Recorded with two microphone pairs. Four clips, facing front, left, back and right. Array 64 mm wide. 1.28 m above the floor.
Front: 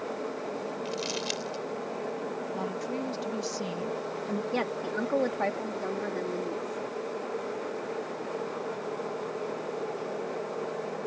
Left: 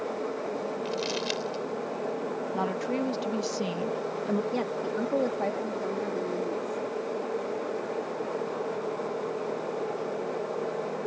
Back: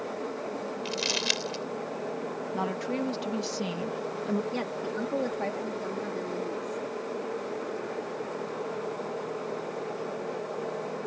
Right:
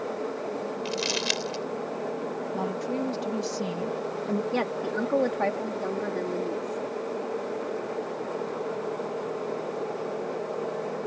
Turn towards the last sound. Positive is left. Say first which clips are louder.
# right 2 dB, front 2 dB
turn(degrees=-60)